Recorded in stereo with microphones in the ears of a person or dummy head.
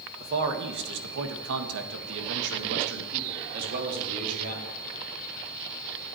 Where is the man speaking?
55° right (ahead or behind), 1.5 m; by 4.8 s 45° right (ahead or behind), 3 m.